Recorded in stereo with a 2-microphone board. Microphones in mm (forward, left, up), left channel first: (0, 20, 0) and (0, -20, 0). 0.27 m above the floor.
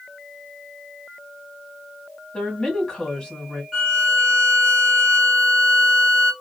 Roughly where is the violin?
Centre.